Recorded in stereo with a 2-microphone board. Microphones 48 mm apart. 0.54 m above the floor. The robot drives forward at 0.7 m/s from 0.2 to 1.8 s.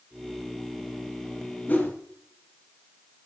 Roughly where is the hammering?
I don't hear hammering.